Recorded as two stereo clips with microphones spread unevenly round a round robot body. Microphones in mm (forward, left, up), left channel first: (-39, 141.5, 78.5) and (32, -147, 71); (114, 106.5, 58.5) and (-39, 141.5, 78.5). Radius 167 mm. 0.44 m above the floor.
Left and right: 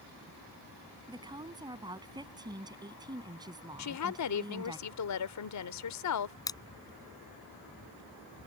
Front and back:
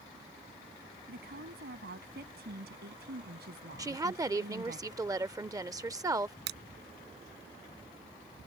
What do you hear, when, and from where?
1.1 s a woman speaking: 155° right
3.8 s a woman speaking: 95° left
6.5 s crushing: straight behind